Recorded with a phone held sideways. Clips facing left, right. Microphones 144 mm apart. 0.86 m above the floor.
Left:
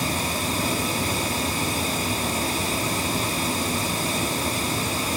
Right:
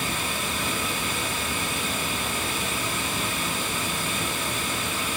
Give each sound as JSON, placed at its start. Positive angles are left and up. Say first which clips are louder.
{"t": 0.0, "sound": "running water", "louder": "left 4 dB", "side_deg": 35, "distance_m": 1.3}